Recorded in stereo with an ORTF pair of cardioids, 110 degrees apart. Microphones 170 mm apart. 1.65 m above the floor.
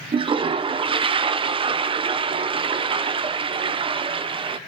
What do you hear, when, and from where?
0.1 s a toilet flushing: 30° right, 1.2 m